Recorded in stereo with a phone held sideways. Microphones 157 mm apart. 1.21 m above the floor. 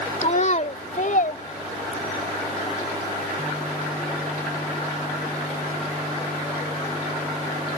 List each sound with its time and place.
0.2 s a child speaking: 45° left (ahead or behind); by 2.3 s 65° left (ahead or behind)